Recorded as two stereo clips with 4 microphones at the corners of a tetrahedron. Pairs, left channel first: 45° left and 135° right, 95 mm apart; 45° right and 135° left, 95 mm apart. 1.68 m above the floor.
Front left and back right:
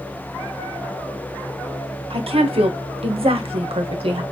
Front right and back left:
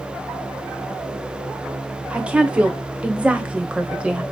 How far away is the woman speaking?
About 0.9 m.